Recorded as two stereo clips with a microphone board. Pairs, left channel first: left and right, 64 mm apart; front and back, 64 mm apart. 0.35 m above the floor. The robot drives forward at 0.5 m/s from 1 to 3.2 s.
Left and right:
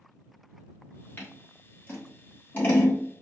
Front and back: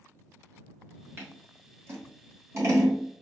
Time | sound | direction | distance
1.2 | scissors | 135° left | 2 m